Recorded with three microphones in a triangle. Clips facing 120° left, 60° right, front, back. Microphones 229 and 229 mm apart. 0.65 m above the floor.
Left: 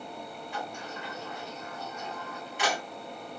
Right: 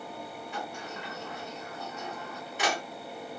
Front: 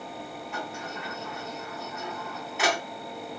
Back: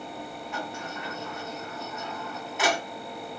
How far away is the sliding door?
About 1.2 m.